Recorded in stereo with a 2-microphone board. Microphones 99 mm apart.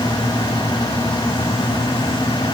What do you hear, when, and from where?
Only background noise.